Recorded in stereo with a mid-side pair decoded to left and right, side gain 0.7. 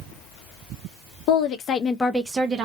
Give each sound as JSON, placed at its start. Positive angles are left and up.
{"t": 1.3, "sound": "a woman speaking", "azimuth_deg": 60, "distance_m": 0.9}